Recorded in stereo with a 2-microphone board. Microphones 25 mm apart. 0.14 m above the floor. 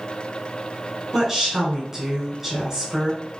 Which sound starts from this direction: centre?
A woman speaking, at 1.1 s.